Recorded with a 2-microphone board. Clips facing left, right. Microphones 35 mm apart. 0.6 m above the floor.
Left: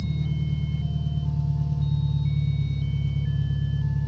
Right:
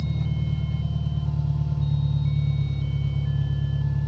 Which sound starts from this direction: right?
An engine running, at 0.0 s.